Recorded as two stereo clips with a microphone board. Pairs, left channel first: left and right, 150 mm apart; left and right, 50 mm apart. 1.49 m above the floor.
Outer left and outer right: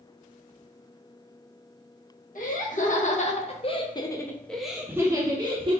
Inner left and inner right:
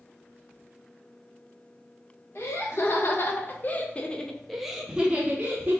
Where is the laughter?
65° left (ahead or behind), 1.4 m; by 5.8 s 40° right (ahead or behind), 1.0 m.